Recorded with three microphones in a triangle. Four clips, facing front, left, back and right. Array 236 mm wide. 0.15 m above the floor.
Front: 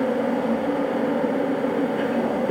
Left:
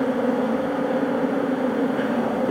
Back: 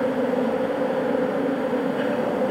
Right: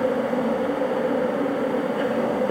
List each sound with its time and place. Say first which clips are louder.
0.0 s an insect: left 1 dB, even; 90° left, 2.5 m